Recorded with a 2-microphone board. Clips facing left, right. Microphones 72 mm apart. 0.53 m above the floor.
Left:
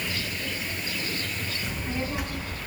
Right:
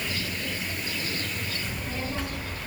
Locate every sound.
1.6 s a child speaking: 15° left (ahead or behind), 6.5 m